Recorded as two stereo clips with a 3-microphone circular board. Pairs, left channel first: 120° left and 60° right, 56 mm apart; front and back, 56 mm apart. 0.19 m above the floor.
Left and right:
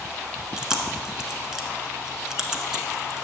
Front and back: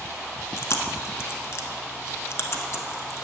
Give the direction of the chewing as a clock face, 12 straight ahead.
11 o'clock.